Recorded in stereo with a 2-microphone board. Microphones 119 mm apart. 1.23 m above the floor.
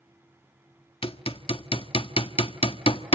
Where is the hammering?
50° left (ahead or behind), 1.4 m.